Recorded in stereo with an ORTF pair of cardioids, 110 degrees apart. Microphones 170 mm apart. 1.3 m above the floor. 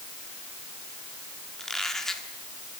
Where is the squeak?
5° left, 2.0 m.